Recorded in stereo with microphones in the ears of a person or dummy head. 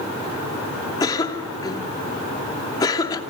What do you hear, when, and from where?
1.0 s a cough: 25° left (ahead or behind), 2.5 m